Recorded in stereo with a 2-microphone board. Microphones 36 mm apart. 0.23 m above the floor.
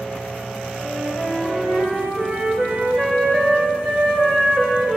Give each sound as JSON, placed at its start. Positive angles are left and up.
{"t": 0.8, "sound": "a flute", "side_deg": -35, "distance_m": 3.0}